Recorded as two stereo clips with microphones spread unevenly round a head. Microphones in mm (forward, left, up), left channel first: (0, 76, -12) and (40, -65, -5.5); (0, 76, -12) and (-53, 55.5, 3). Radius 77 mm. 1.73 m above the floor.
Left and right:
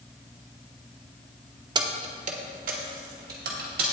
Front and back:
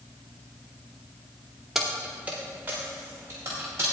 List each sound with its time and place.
1.8 s keys jangling: 100° right, 0.7 m